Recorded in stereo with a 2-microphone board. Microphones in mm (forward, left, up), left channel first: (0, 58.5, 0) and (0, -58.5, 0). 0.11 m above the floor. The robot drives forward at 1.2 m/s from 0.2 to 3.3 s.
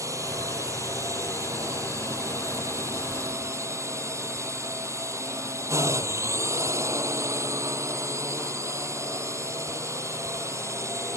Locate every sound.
0.0 s a drone: 25° right (ahead or behind)